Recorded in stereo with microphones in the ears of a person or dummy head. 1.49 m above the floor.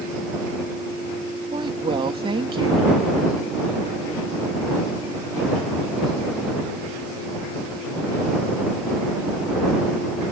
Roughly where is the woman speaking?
Right.